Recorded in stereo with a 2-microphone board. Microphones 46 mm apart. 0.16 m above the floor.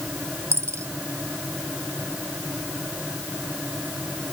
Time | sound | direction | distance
0.5 | a dropped coin | 85° right | ?